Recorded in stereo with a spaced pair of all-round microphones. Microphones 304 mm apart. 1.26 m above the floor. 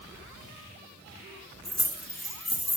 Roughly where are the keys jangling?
Left.